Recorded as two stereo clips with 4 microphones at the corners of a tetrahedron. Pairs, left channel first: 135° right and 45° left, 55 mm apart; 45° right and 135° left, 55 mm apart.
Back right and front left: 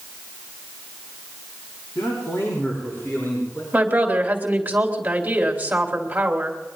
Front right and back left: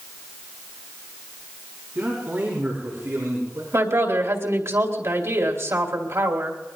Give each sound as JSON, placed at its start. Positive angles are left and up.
{"t": 1.9, "sound": "a man speaking", "azimuth_deg": -175, "distance_m": 6.0}
{"t": 3.7, "sound": "a woman speaking", "azimuth_deg": 105, "distance_m": 3.0}